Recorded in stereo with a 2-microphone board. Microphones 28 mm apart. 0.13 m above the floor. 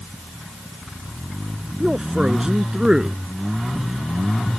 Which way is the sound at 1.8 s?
20° right (ahead or behind).